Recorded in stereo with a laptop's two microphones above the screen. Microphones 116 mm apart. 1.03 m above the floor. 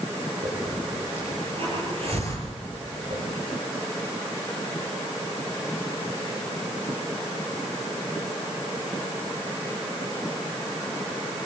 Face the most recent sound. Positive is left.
turn(degrees=-60)  # may be behind; listen again after turning